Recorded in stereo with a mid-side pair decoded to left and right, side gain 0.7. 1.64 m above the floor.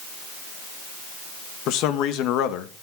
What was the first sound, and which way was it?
A man speaking, 60° left.